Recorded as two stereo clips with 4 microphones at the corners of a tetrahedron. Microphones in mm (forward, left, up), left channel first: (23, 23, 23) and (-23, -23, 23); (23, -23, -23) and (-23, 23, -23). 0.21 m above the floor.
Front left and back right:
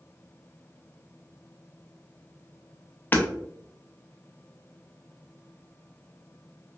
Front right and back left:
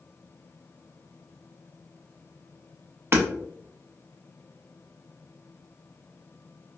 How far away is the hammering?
About 0.5 m.